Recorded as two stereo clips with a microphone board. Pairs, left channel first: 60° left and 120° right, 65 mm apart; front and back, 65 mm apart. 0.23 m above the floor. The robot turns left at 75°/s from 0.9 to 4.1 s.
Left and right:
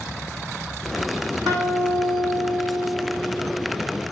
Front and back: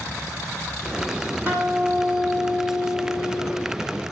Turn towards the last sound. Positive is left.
turn(degrees=45)